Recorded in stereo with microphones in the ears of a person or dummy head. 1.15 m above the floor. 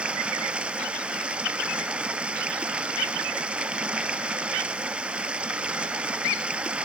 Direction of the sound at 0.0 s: 10° right (ahead or behind).